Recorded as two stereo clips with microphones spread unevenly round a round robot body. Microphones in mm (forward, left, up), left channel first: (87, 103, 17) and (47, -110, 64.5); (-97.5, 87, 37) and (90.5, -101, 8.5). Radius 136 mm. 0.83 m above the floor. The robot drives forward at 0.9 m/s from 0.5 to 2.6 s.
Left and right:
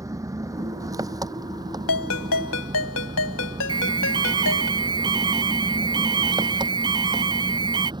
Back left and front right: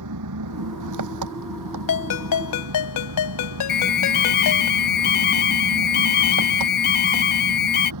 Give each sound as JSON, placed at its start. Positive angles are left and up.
{"t": 0.0, "sound": "an engine running", "azimuth_deg": -30}
{"t": 1.9, "sound": "a ringtone", "azimuth_deg": 100}
{"t": 3.7, "sound": "an alarm", "azimuth_deg": -175}